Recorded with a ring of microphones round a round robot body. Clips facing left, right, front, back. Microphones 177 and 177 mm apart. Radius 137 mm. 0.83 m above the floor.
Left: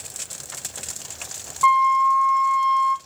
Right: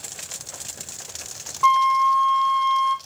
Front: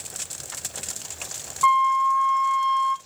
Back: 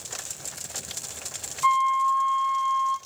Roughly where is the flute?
Ahead.